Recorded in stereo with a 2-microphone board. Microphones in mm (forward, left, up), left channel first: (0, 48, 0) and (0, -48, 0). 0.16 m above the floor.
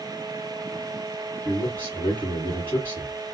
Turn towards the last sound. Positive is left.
turn(degrees=20)  # may be behind; listen again after turning